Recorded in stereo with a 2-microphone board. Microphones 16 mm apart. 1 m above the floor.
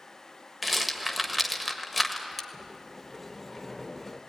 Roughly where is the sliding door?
Centre.